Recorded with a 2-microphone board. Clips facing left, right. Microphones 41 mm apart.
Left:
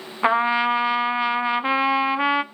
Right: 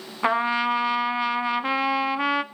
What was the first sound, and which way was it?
A trumpet, 15° left (ahead or behind).